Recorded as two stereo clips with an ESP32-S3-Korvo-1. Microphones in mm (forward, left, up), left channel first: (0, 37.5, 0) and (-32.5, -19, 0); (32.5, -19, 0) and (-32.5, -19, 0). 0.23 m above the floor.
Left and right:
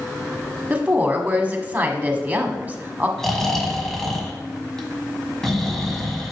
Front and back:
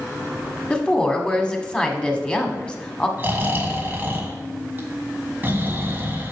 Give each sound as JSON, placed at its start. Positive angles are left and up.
{"t": 0.7, "sound": "a woman speaking", "azimuth_deg": -65, "distance_m": 1.3}
{"t": 3.2, "sound": "snoring", "azimuth_deg": 140, "distance_m": 1.5}